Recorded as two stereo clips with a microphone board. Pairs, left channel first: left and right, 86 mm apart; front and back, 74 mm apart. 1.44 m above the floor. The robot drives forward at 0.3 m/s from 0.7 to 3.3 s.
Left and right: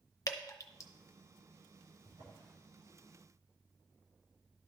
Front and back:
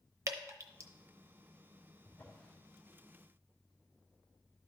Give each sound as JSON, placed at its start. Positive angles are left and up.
{"t": 0.3, "sound": "dripping", "azimuth_deg": 135, "distance_m": 0.7}
{"t": 2.0, "sound": "a drawer", "azimuth_deg": -65, "distance_m": 2.5}